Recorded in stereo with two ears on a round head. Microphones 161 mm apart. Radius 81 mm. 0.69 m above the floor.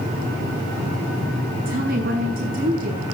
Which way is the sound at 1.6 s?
50° right (ahead or behind).